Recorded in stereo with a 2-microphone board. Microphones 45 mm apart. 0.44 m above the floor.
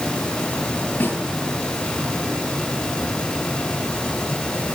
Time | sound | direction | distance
1.0 | a snare drum | 55° left (ahead or behind) | 9.5 m